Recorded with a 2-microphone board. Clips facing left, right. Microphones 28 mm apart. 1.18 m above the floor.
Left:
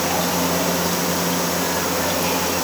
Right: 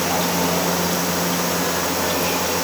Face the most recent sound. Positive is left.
No sound to turn to.